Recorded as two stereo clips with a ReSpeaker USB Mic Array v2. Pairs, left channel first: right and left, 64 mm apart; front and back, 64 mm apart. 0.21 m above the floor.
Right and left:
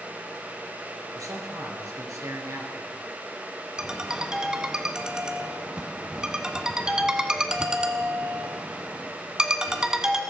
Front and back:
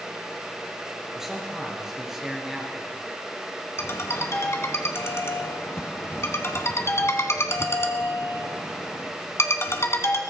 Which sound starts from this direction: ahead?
A ringtone, at 3.8 s.